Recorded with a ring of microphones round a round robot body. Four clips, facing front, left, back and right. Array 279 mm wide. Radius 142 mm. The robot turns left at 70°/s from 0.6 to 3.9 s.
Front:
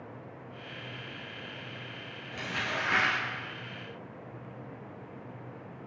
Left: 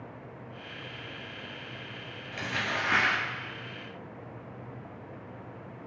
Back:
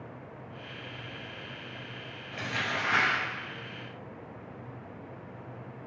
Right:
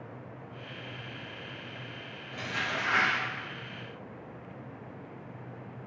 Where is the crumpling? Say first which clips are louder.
Left 1 dB, back 1 dB; 125° left, 1.9 m; by 3.2 s 60° left, 1.9 m.